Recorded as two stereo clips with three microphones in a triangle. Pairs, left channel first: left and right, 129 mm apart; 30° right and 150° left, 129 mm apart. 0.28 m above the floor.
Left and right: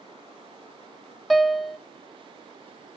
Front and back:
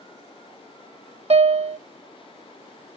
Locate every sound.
1.3 s a piano: straight behind, 0.5 m